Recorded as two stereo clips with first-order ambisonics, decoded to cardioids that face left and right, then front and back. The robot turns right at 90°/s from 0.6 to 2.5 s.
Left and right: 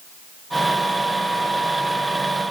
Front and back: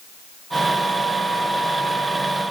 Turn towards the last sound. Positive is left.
No sound to turn to.